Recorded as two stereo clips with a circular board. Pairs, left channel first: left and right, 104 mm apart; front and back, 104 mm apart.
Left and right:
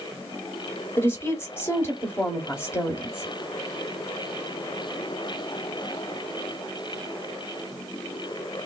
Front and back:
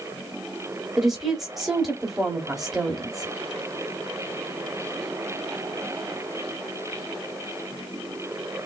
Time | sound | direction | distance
1.0 | a woman speaking | 100° left | 1.0 m